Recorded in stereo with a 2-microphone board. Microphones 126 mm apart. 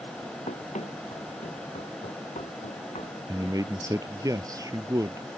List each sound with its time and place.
0.5 s running footsteps: 65° left (ahead or behind); by 3.2 s 70° left (ahead or behind)
3.3 s a man speaking: 30° right (ahead or behind)